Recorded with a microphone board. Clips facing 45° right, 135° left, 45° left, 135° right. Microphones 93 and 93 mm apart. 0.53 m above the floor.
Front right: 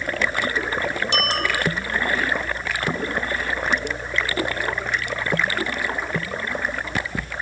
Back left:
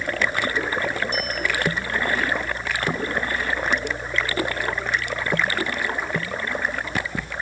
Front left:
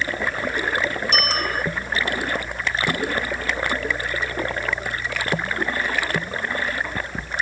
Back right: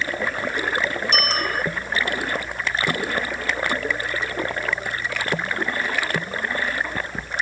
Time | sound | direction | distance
1.1 | a bicycle bell | 45° right | ?